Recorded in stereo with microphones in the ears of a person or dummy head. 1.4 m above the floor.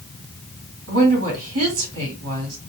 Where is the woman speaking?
80° right, 2.0 m.